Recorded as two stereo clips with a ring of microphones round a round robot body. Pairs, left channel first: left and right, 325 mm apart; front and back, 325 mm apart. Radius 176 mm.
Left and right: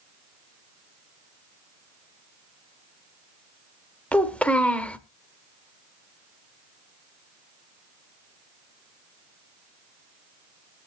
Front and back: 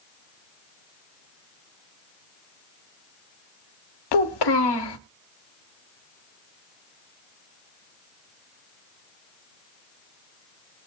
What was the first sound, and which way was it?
A child speaking, 5° left.